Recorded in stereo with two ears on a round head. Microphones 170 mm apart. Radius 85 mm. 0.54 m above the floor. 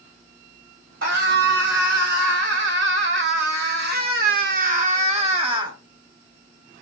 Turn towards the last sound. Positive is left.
turn(degrees=-25)  # may be behind; listen again after turning